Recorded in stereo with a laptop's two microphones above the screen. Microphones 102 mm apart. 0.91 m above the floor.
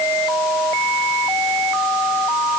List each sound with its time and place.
Only background noise.